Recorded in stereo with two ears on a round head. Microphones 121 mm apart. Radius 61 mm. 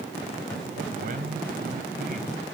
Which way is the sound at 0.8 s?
70° right (ahead or behind).